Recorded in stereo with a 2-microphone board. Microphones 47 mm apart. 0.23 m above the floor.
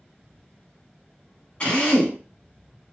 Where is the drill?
25° left (ahead or behind), 1.3 m.